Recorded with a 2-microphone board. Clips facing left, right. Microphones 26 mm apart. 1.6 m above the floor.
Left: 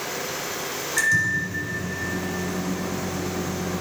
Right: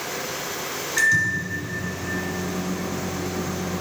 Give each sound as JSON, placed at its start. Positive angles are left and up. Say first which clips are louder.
{"t": 1.0, "sound": "a microwave", "louder": "right 1 dB", "side_deg": -15, "distance_m": 3.0}